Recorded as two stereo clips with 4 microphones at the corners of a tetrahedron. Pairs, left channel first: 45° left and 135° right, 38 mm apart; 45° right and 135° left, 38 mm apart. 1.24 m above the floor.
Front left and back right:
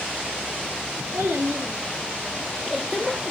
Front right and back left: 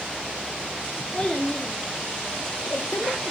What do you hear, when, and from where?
1.1 s a child speaking: 120° right, 1.5 m; by 3.3 s 20° right, 0.9 m